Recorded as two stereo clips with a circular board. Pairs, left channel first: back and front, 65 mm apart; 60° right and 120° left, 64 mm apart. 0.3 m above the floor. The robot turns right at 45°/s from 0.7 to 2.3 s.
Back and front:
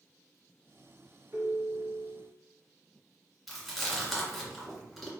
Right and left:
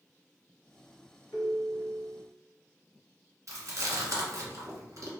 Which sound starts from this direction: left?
Chewing, at 3.5 s.